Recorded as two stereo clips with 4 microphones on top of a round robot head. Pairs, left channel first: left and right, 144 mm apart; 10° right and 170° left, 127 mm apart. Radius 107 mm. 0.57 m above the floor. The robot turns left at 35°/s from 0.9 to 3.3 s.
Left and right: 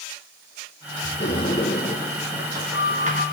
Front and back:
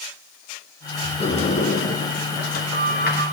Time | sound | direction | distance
1.2 | a sliding door | 30° left | 1.8 m